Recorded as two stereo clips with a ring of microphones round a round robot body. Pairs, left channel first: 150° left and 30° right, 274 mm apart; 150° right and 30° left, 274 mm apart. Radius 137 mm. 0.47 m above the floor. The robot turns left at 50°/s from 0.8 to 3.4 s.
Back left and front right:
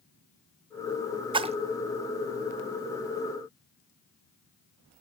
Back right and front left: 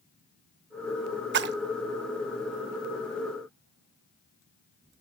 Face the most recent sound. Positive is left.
turn(degrees=-70)